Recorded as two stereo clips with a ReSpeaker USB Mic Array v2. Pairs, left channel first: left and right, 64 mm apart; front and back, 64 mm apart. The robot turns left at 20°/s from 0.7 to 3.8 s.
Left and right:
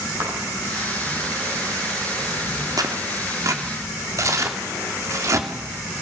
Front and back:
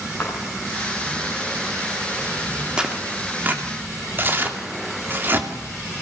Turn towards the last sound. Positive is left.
turn(degrees=-125)